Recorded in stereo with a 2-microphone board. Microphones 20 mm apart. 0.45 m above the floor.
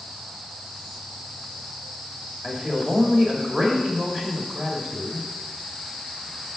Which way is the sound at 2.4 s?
35° right (ahead or behind).